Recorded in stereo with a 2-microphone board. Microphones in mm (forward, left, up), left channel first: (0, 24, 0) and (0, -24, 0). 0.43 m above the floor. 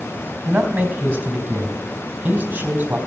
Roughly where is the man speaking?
Right.